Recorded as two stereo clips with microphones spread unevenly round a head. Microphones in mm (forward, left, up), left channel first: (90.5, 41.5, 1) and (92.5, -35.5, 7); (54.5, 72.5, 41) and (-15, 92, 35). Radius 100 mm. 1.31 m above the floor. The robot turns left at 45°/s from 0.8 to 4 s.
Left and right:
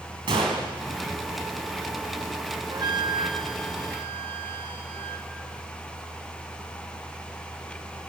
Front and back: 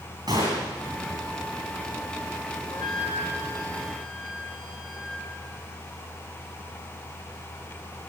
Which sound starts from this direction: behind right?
A gunshot, at 0.3 s.